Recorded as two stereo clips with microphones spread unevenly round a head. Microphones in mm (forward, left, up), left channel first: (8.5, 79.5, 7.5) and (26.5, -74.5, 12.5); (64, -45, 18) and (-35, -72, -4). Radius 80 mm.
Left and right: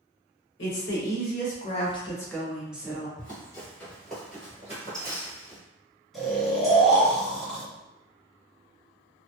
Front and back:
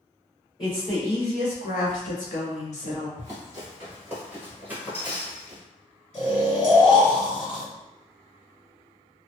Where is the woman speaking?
85° left, 1.1 m; by 3.1 s 10° right, 1.0 m.